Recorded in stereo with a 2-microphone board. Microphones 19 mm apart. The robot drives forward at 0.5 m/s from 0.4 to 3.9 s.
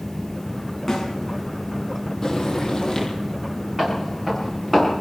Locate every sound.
0.9 s a snare drum: 25° left (ahead or behind), 8.5 m
2.2 s frying: 25° left (ahead or behind), 7 m
3.8 s footsteps: 10° right (ahead or behind), 9 m; by 4.9 s 5° right (ahead or behind), 10 m